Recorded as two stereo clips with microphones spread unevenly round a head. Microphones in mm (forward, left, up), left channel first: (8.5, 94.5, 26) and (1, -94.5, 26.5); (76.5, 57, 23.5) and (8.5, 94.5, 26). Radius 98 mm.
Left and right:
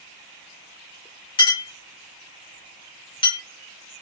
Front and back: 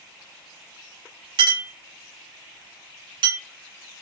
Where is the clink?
155° left, 1.2 m.